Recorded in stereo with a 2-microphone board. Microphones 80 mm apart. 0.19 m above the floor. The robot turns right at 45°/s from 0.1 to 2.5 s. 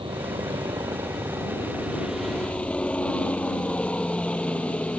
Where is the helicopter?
75° right (ahead or behind); by 5.0 s 15° left (ahead or behind).